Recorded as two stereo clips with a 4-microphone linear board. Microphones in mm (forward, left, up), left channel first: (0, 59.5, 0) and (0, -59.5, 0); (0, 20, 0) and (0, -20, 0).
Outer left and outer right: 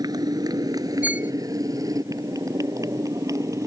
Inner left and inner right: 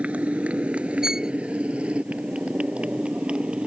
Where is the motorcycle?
35° right (ahead or behind); by 3.7 s 25° right (ahead or behind).